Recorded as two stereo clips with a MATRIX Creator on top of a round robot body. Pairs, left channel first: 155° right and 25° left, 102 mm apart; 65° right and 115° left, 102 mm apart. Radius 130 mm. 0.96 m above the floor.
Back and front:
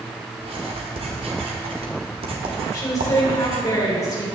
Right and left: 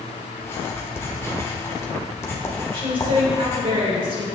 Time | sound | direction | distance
0.4 | writing | straight ahead | 1.4 m
2.7 | a woman speaking | 150° left | 3.5 m